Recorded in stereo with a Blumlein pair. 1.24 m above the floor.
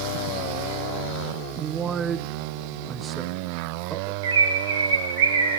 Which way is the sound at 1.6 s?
25° right.